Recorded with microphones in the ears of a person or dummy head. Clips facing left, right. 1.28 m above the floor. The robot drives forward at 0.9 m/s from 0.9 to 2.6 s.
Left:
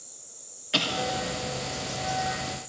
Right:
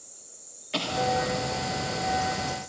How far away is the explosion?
About 1.4 m.